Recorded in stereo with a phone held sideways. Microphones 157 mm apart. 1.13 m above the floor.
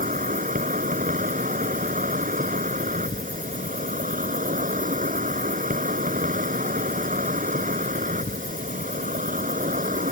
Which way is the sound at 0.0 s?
60° right (ahead or behind).